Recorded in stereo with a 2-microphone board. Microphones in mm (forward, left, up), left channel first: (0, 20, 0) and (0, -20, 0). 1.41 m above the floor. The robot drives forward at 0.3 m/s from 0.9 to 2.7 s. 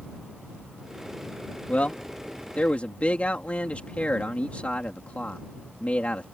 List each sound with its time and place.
1.7 s a man speaking: 35° left (ahead or behind)